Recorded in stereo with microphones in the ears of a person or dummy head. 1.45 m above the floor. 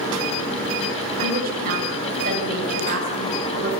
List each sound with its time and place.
1.2 s a woman speaking: 55° right (ahead or behind), 7 m; by 3.7 s 50° right (ahead or behind), 8.5 m